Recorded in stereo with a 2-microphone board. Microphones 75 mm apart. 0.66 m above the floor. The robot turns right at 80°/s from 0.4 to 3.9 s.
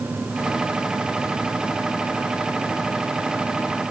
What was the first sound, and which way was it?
Only background noise.